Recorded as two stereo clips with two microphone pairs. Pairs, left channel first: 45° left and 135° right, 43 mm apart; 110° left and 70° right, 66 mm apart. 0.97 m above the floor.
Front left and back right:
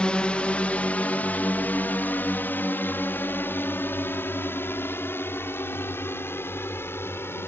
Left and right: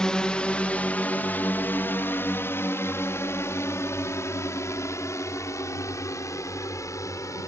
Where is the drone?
50° left; by 7.5 s 75° left.